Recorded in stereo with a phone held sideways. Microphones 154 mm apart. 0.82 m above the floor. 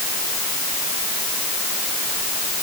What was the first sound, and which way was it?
Only background noise.